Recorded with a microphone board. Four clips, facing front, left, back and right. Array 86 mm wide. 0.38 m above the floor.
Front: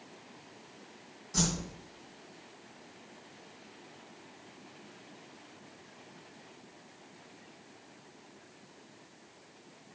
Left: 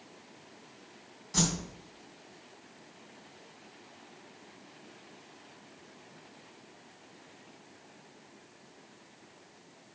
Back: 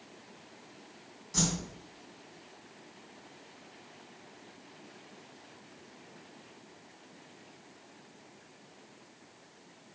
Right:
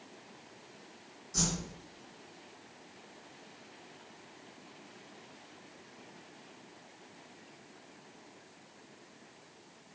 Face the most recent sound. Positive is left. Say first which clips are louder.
# left 4 dB, even
turn(degrees=90)